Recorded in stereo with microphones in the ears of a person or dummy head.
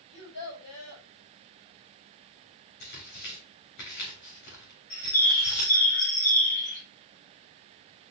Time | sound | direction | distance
0.1 | a child speaking | 85° left | 5 m
2.8 | tearing paper | 60° left (ahead or behind) | 4 m
4.9 | a bird | 45° left (ahead or behind) | 2.5 m